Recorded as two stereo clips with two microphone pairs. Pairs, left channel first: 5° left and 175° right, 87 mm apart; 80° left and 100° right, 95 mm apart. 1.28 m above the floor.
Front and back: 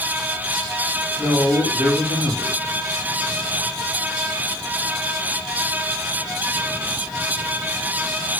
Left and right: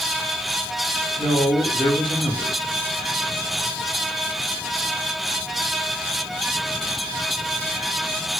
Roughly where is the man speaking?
Behind left.